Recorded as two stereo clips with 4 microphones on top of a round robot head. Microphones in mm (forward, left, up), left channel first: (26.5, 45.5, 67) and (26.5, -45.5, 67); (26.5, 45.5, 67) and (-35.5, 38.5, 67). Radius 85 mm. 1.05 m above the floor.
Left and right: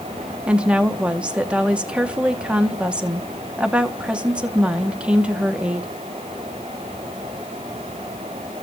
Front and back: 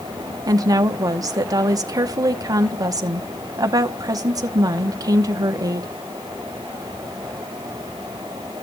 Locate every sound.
0.5 s a woman speaking: 165° right, 1.0 m